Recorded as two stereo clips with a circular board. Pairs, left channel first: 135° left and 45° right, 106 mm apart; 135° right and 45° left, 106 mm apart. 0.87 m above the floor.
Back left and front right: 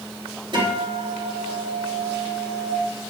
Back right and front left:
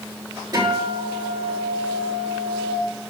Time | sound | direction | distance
0.5 | a guitar | 5° right | 4.5 m